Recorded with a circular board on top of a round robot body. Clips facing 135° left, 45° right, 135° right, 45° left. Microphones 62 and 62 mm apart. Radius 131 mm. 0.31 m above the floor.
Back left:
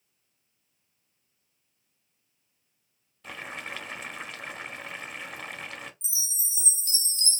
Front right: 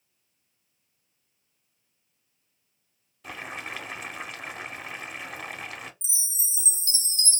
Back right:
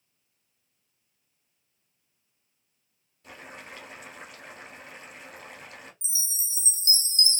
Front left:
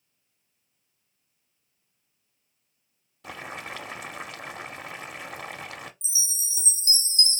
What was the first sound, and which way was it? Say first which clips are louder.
Boiling: front right 1 dB, front left 7 dB; 40° left.